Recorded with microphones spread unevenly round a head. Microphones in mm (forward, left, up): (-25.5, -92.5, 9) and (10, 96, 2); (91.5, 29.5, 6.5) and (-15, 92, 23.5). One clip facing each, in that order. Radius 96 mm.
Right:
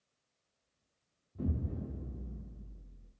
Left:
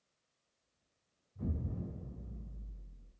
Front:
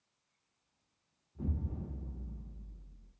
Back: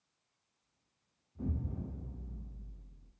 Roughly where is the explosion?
Right.